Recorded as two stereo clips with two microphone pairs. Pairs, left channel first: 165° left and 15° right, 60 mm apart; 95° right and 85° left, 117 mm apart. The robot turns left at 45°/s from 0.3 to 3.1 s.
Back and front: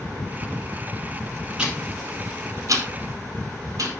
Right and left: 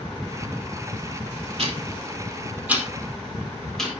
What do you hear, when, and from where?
1.6 s ticking: 55° left, 5 m; by 3.9 s 10° right, 5 m